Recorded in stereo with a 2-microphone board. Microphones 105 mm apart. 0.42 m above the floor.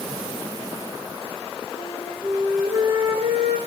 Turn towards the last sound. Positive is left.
turn(degrees=-70)  # may be behind; listen again after turning